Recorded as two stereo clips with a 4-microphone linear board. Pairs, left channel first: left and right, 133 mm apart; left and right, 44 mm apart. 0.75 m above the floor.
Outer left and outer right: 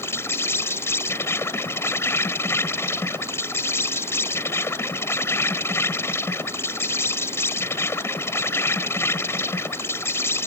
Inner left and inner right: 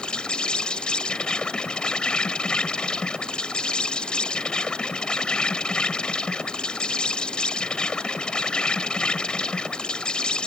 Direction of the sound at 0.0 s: 20° left (ahead or behind).